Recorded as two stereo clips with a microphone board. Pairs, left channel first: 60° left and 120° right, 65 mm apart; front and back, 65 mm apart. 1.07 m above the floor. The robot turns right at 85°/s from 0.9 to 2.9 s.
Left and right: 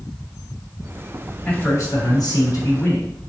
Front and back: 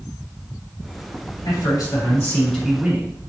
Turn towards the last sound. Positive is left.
turn(degrees=110)